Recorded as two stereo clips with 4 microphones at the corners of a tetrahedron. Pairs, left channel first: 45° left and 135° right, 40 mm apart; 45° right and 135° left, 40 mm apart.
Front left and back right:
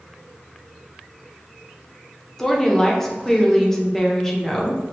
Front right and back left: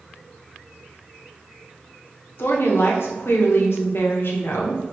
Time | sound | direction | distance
2.4 | a woman speaking | 35° right | 0.9 m